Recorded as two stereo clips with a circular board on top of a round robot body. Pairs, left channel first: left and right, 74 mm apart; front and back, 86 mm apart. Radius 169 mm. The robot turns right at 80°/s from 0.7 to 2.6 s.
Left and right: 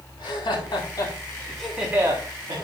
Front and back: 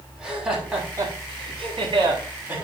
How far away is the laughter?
About 8 m.